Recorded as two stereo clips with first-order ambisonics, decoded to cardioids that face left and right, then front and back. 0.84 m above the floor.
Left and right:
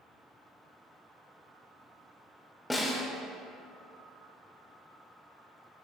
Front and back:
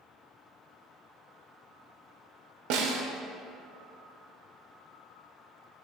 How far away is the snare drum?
About 0.8 m.